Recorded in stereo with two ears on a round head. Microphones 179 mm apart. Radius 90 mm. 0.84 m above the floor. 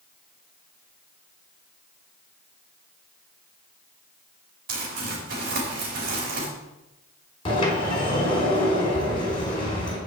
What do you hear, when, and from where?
4.7 s crumpling: 45° right (ahead or behind), 4.5 m
7.5 s a sliding door: 25° left (ahead or behind), 4 m